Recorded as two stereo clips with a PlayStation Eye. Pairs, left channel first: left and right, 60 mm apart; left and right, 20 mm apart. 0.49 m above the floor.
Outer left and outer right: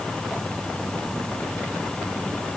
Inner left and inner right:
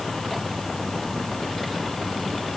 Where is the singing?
No singing in this recording.